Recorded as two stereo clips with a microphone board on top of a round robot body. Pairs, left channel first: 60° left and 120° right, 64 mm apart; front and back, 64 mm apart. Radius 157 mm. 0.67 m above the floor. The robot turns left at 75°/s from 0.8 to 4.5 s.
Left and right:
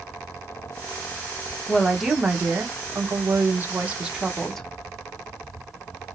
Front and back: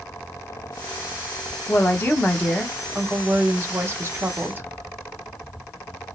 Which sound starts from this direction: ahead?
A woman speaking, at 1.7 s.